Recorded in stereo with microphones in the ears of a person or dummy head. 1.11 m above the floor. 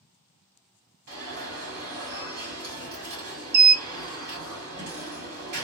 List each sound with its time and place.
1.1 s an alarm: 55° right (ahead or behind), 1.8 m